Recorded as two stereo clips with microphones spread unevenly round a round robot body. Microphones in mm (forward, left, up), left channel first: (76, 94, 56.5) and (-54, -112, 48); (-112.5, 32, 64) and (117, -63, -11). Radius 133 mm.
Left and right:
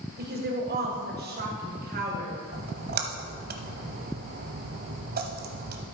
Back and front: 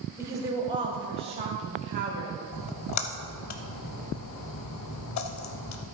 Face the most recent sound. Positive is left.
turn(degrees=-175)